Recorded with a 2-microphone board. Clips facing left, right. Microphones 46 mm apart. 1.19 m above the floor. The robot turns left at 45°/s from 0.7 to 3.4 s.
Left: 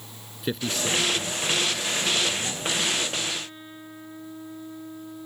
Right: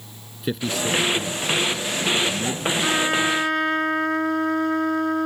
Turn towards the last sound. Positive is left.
turn(degrees=-90)